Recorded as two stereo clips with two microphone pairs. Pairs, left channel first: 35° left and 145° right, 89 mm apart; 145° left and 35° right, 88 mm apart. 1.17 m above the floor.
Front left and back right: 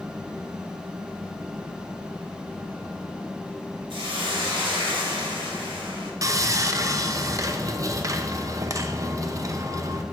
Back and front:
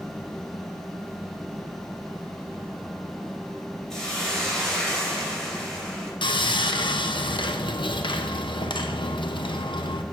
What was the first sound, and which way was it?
A hiss, 130° right.